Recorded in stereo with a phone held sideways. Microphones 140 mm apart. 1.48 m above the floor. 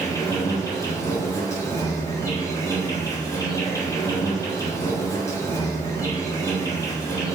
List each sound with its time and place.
0.0 s an insect: 20° left (ahead or behind), 1.1 m